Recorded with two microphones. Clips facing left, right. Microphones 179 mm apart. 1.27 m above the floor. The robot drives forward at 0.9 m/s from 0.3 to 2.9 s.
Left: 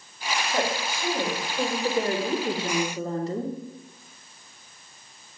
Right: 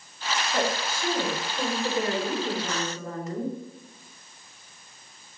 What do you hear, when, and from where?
0.5 s a woman speaking: 15° left (ahead or behind), 3.5 m; by 3.5 s 30° left (ahead or behind), 1.6 m